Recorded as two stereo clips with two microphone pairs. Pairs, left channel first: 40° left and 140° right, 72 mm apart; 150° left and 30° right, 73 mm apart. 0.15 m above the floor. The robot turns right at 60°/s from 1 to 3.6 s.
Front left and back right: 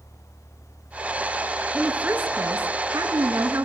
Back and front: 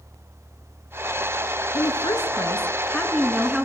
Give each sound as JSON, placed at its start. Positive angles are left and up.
{"t": 1.7, "sound": "a woman speaking", "azimuth_deg": 145, "distance_m": 2.0}